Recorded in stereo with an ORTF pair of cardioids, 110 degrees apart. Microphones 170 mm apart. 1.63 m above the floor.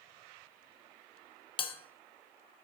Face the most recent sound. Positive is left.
turn(degrees=30)